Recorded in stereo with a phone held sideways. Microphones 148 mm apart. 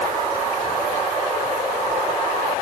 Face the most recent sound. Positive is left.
No sound to turn to.